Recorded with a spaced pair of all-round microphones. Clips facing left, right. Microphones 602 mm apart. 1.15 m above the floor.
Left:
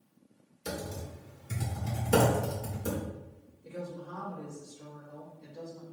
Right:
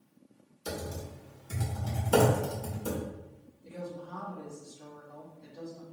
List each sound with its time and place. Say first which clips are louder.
0.7 s typing on a keyboard: even; 50° left (ahead or behind), 1.4 m
3.6 s a woman speaking: left 1 dB; 75° left (ahead or behind), 1.8 m